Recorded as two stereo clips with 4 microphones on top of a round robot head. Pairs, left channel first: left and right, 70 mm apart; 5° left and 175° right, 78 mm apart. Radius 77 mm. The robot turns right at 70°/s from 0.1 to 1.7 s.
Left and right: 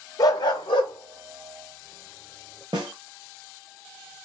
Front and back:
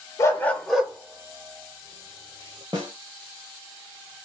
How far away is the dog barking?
About 0.6 m.